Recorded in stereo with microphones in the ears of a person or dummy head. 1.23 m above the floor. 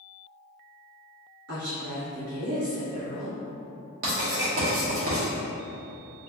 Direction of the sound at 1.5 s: 85° right.